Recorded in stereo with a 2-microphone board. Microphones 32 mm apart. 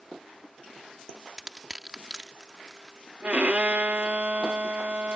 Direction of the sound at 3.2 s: 50° right (ahead or behind).